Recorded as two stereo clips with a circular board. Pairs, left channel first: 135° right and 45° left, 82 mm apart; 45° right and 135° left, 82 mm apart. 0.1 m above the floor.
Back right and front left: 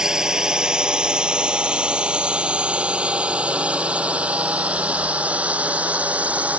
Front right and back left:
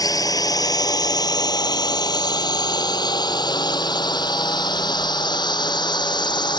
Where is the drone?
35° right; by 6.6 s 30° right.